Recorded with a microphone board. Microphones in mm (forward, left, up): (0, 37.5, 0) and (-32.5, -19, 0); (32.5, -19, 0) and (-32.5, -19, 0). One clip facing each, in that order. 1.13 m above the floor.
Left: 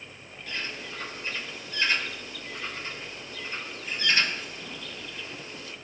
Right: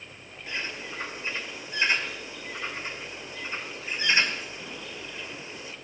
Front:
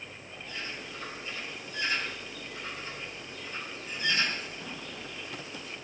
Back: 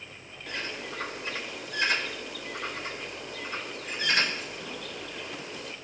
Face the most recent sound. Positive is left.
turn(degrees=170)